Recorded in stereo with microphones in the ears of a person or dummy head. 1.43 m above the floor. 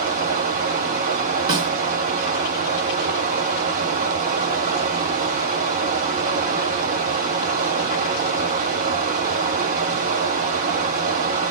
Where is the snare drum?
30° right (ahead or behind), 1.4 m.